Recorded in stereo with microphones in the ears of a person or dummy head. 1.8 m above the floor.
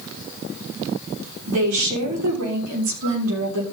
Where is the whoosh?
No whoosh in this recording.